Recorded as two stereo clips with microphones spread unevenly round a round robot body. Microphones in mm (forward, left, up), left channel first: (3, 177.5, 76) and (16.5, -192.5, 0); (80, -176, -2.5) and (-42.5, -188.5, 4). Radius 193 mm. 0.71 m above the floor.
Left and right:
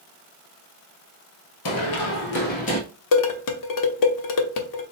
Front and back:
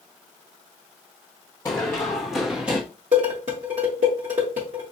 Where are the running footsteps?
75° left, 1.0 m; by 2.8 s 125° left, 0.7 m.